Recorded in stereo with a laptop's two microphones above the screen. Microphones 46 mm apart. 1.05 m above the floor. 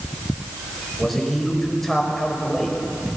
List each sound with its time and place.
1.0 s a man speaking: 5° left (ahead or behind), 5 m